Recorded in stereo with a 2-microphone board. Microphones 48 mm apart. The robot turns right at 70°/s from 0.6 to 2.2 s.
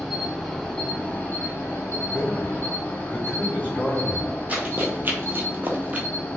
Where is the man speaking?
35° left (ahead or behind), 1.1 m; by 4.3 s 40° left (ahead or behind), 1.1 m.